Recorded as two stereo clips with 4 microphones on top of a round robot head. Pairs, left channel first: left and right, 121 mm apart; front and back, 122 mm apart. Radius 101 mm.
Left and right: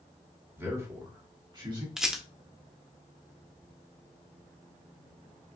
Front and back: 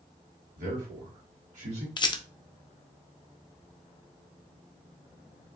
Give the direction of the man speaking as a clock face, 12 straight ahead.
5 o'clock.